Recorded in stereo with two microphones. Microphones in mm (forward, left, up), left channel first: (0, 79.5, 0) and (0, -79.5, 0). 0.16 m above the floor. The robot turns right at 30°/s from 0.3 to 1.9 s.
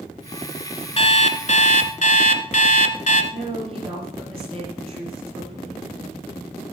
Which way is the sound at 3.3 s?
40° right (ahead or behind).